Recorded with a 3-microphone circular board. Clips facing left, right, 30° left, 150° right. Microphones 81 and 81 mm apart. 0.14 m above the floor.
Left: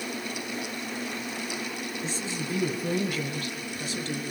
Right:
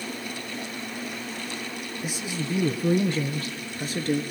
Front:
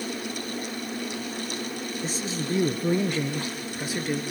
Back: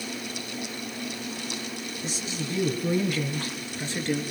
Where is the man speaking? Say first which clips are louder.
Right 4 dB, front 3 dB; 10° right, 3 m; by 4.2 s 55° right, 2.5 m.